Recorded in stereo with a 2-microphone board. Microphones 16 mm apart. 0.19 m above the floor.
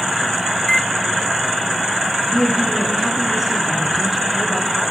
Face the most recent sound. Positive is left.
turn(degrees=-15)  # may be behind; listen again after turning